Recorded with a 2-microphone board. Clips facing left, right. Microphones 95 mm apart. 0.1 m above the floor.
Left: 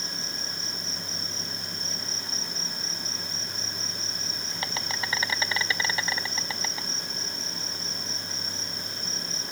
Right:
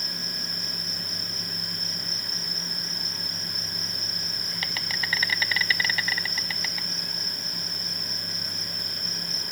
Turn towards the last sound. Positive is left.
turn(degrees=25)  # may be behind; listen again after turning